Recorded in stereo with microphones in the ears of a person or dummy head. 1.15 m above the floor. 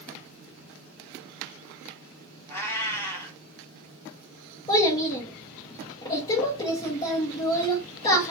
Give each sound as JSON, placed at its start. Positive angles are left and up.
{"t": 2.5, "sound": "a cat meowing", "side_deg": 10, "distance_m": 0.9}
{"t": 4.7, "sound": "a child speaking", "side_deg": 25, "distance_m": 0.6}